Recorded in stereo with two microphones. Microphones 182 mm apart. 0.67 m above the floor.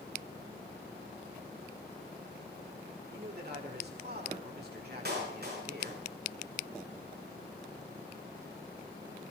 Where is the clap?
65° right (ahead or behind), 7 m.